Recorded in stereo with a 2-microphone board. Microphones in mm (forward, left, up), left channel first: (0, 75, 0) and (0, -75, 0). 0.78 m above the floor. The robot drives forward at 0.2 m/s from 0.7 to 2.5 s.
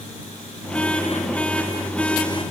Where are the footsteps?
No footsteps in this recording.